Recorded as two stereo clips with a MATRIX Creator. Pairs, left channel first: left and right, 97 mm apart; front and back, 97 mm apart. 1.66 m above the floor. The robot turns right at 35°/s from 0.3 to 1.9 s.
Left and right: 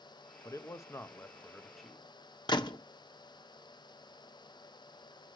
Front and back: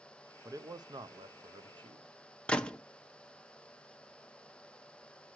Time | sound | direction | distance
0.5 | a man speaking | 130° left | 0.5 m
2.5 | a gunshot | 75° left | 0.7 m